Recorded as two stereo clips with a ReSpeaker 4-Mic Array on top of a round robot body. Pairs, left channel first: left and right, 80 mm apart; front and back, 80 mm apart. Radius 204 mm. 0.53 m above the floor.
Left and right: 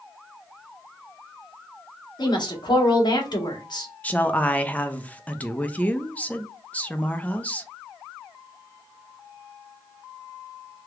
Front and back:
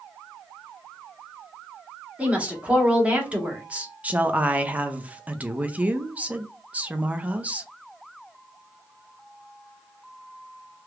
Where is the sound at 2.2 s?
110° left, 1.3 m.